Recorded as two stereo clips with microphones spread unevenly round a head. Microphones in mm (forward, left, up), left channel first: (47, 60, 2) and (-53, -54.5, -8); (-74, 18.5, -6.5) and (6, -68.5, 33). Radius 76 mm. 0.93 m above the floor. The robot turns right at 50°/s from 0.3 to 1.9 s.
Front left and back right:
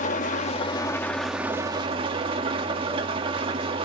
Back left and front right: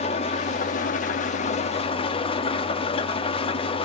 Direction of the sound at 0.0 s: 90° left.